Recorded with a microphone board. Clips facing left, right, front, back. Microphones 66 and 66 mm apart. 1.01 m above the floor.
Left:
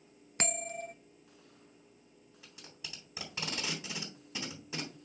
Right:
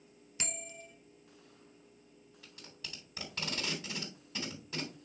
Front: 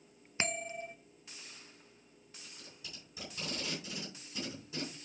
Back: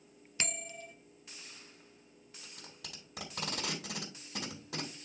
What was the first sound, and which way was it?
A bell, 60° left.